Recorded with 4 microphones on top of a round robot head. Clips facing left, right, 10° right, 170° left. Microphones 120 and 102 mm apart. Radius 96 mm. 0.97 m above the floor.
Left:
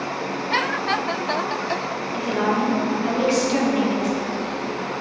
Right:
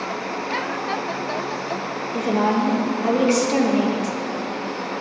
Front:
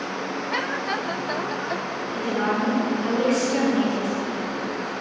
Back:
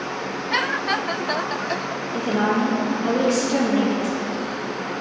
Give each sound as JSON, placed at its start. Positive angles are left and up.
{"t": 2.1, "sound": "a woman speaking", "azimuth_deg": -130, "distance_m": 1.5}